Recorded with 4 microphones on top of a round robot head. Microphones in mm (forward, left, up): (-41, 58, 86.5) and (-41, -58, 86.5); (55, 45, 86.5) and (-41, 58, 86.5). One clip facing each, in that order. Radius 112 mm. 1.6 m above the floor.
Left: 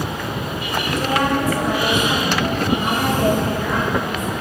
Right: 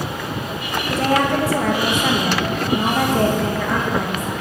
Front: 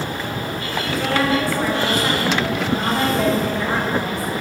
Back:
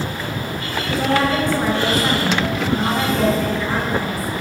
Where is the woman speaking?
120° right, 2.5 m; by 4.3 s 75° right, 2.5 m.